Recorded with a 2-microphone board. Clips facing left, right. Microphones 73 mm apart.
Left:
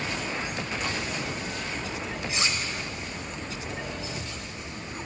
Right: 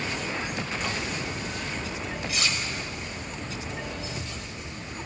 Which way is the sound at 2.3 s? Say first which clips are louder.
Left 1 dB; 25° left (ahead or behind).